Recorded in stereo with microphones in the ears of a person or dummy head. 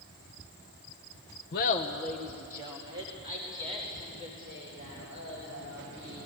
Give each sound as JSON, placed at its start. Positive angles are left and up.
{"t": 1.5, "sound": "laughter", "side_deg": 50, "distance_m": 0.9}